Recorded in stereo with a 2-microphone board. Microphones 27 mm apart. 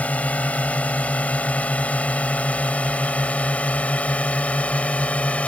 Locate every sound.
0.0 s a drone: 65° left (ahead or behind); by 5.5 s 60° left (ahead or behind)